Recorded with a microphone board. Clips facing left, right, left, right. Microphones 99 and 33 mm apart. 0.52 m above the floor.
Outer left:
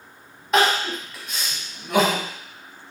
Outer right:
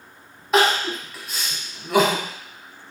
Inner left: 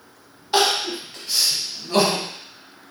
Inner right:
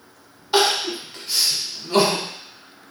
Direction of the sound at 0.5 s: Centre (ahead or behind).